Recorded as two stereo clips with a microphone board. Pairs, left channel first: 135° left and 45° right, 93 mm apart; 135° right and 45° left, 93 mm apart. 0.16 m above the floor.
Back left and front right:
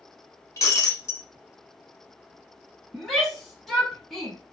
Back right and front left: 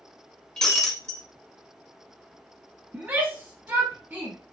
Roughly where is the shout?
Ahead left.